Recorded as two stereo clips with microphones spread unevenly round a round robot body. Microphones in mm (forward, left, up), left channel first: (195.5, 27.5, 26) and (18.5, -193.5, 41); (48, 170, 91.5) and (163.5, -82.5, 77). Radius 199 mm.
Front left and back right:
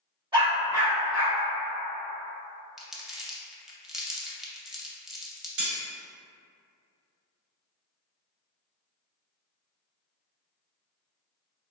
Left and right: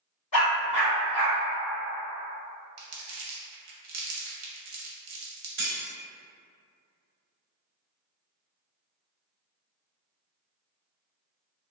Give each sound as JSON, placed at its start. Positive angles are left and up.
{"t": 0.3, "sound": "a dog barking", "azimuth_deg": 155, "distance_m": 1.0}
{"t": 2.8, "sound": "crumpling", "azimuth_deg": -40, "distance_m": 0.7}
{"t": 5.6, "sound": "cutlery clinking", "azimuth_deg": -140, "distance_m": 1.3}